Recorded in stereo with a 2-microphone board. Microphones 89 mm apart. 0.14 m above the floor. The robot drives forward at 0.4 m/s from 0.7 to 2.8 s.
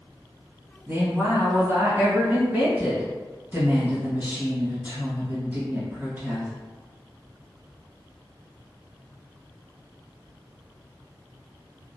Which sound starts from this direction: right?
A woman speaking, at 0.9 s.